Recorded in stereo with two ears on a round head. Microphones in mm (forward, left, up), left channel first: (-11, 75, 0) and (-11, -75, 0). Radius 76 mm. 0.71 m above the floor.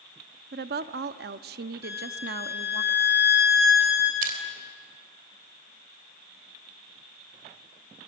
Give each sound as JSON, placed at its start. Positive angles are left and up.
{"t": 0.5, "sound": "a woman speaking", "side_deg": -60, "distance_m": 0.8}
{"t": 1.8, "sound": "a violin", "side_deg": -15, "distance_m": 9.5}
{"t": 4.2, "sound": "crushing", "side_deg": -50, "distance_m": 3.0}